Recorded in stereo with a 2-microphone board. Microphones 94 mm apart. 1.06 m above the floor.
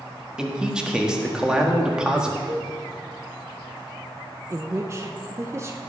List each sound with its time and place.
0.4 s a man speaking: 10° right (ahead or behind), 1.7 m
2.5 s a cowbell: 65° right (ahead or behind), 2 m
4.5 s a woman speaking: 30° right (ahead or behind), 0.8 m